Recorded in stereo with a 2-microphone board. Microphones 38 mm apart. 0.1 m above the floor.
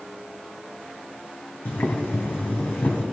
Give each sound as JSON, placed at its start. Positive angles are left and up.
{"t": 1.6, "sound": "boiling", "side_deg": 80, "distance_m": 2.5}